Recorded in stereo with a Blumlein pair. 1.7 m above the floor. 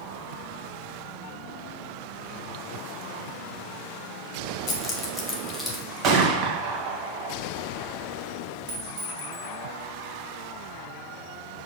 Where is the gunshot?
35° right, 2 m.